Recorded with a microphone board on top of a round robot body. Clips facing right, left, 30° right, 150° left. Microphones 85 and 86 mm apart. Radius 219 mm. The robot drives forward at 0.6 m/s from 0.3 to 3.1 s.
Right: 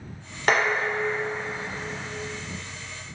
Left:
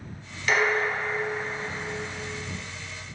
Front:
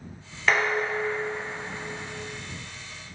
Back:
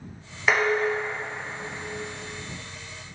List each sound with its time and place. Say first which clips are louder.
0.5 s dishes clattering: right 1 dB, back 2 dB; 130° right, 0.9 m; by 2.1 s 155° right, 1.6 m